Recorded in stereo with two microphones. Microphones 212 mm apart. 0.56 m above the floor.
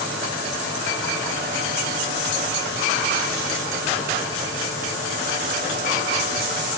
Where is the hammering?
No hammering in this recording.